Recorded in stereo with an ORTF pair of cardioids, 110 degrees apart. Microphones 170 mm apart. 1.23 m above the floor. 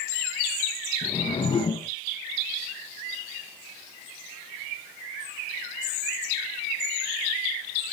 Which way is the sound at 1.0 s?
30° left.